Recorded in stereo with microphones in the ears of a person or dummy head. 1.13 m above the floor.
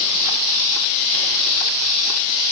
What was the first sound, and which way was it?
Only background noise.